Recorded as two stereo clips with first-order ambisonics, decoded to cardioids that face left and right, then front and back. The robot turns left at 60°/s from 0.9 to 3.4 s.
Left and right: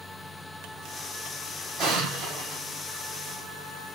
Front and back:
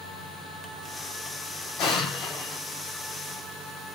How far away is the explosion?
About 4.5 m.